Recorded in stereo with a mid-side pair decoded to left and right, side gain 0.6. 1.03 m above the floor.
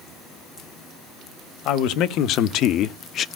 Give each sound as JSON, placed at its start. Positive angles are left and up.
{"t": 1.6, "sound": "a man speaking", "azimuth_deg": 70, "distance_m": 1.3}